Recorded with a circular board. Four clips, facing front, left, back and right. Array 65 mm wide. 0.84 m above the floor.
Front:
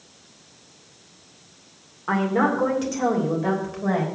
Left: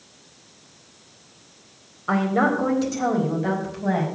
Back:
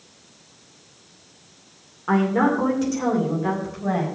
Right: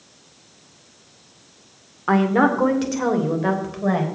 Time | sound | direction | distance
2.1 | a woman speaking | 90° right | 2 m